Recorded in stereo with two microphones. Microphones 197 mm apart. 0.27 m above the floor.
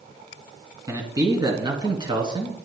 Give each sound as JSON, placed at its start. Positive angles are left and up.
{"t": 0.9, "sound": "a man speaking", "side_deg": -20, "distance_m": 3.0}